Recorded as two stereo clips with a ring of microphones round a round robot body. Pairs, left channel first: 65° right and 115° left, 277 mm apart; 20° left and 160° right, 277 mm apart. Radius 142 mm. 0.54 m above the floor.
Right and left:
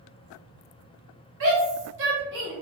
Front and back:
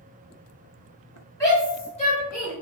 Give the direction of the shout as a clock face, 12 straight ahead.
9 o'clock.